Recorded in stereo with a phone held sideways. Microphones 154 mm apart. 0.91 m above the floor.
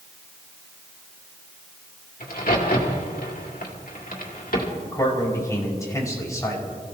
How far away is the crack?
About 2.5 m.